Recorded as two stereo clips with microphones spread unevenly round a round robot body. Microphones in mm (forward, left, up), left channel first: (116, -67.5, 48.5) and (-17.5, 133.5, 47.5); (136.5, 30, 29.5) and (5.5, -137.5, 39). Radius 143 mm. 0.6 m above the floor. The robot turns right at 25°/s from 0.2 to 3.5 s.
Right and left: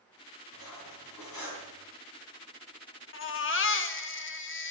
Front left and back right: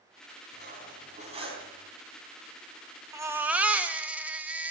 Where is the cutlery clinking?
85° right, 3.5 m; by 1.7 s 60° right, 3.5 m.